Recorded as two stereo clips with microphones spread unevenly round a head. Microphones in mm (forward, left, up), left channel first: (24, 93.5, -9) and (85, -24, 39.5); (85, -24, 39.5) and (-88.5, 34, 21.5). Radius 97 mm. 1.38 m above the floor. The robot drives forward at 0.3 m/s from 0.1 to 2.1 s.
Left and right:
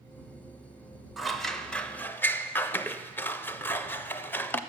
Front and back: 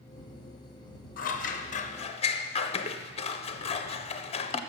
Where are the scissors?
30° left, 0.8 m; by 4.6 s 40° left, 0.6 m.